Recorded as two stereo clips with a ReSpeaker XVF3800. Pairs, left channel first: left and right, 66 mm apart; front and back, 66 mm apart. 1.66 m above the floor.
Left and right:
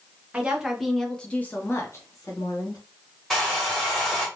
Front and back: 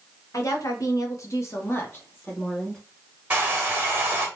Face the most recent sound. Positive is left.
turn(degrees=170)